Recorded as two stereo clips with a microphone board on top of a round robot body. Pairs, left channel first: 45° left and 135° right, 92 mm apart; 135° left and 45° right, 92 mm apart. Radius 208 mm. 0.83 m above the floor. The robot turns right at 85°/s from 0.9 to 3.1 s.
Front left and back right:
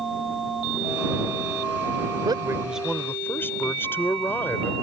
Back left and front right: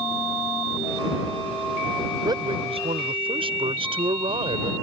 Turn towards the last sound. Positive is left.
turn(degrees=-25)